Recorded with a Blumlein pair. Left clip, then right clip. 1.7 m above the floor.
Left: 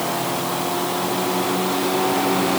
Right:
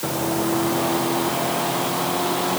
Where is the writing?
I don't hear writing.